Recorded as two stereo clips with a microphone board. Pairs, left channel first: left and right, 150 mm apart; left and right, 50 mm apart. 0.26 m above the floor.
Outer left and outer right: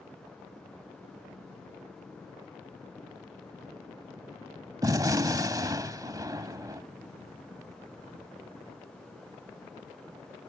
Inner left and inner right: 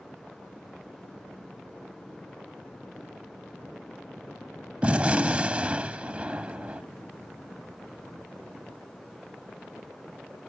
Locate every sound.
4.8 s a gunshot: 25° right (ahead or behind)